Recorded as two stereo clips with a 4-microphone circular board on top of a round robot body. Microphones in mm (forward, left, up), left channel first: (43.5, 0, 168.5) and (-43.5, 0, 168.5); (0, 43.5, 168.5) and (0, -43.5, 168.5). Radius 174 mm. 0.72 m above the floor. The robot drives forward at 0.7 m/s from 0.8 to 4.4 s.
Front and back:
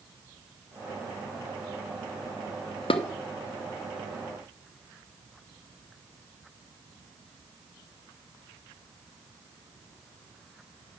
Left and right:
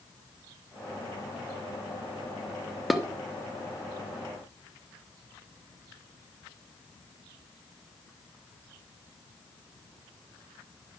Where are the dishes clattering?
Straight ahead, 1.0 m.